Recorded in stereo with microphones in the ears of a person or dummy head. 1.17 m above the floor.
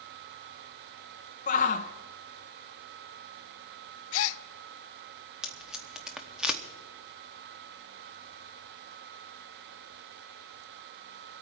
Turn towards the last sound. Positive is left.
turn(degrees=-5)  # may be behind; listen again after turning